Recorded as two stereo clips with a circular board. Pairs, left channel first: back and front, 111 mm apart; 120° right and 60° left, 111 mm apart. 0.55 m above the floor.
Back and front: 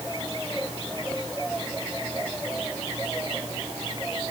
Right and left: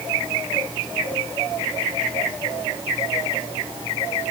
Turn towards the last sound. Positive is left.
No sound to turn to.